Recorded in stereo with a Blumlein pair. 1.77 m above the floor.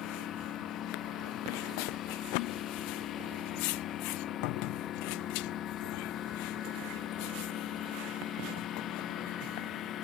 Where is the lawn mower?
30° left.